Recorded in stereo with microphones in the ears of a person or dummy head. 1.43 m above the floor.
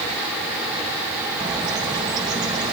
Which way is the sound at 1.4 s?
25° right (ahead or behind).